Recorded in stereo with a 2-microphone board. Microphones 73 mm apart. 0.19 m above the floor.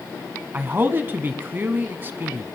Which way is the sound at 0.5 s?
30° right (ahead or behind).